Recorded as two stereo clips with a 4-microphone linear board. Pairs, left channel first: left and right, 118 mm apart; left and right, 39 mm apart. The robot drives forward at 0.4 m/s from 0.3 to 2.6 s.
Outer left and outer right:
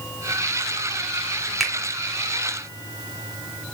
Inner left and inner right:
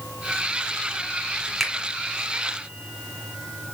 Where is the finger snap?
Centre (ahead or behind), 1.3 m.